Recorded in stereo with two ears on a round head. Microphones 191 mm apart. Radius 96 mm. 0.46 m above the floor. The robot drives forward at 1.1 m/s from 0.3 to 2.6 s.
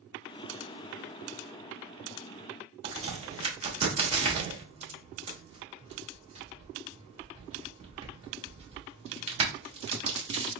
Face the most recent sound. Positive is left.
turn(degrees=-30)  # may be behind; listen again after turning